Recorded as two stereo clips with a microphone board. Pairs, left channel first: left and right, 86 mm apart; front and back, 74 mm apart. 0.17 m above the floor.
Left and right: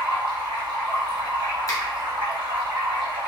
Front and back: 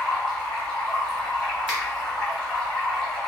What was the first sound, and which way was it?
Running water, 80° right.